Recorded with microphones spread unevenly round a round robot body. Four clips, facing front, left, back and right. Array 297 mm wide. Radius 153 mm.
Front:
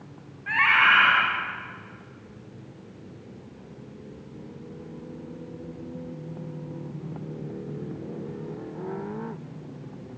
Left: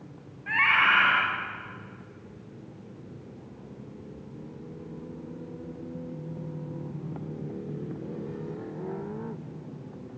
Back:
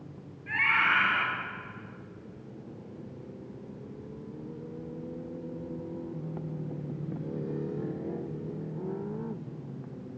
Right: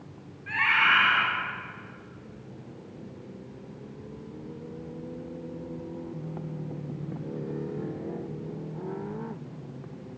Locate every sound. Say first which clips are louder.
0.5 s a scream: left 1 dB, front 7 dB; 35° left, 5 m